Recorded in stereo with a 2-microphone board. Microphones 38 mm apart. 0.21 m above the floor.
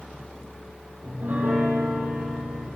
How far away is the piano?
About 6 m.